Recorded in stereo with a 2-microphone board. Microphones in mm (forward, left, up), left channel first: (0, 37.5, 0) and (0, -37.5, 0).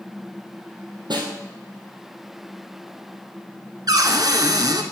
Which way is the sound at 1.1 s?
80° right.